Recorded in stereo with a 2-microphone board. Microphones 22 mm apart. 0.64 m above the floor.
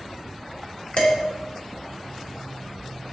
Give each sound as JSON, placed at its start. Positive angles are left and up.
{"t": 1.0, "sound": "dishes clattering", "side_deg": 65, "distance_m": 1.0}